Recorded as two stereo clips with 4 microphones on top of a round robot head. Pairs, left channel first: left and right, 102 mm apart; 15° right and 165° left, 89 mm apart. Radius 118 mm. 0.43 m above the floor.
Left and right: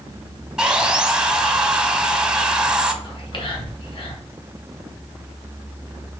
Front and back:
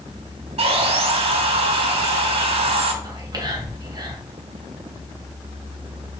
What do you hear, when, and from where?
0.6 s sawing: 170° right, 0.8 m
3.0 s whispering: 125° left, 3 m